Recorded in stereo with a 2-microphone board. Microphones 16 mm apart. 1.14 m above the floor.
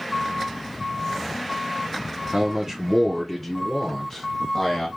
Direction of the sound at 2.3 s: 25° right (ahead or behind).